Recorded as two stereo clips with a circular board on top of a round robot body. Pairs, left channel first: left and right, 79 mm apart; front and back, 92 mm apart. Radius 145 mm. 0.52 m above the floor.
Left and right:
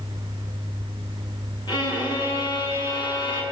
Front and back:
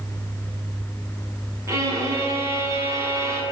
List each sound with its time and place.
1.7 s a violin: 120° left, 7.5 m